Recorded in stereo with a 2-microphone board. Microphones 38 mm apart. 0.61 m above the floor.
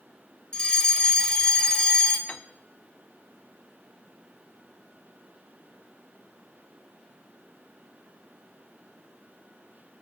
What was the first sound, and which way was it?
A fire alarm, 20° left (ahead or behind).